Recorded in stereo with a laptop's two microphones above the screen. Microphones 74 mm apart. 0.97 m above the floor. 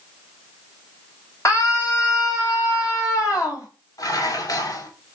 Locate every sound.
1.4 s a scream: 40° left (ahead or behind), 4.5 m; by 3.7 s 45° left (ahead or behind), 5.5 m
4.0 s dishes clattering: 55° left (ahead or behind), 2 m